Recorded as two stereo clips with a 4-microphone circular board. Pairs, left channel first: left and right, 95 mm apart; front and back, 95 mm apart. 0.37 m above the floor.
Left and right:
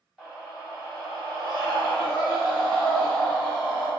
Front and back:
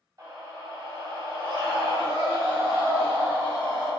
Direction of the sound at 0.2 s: 170° right.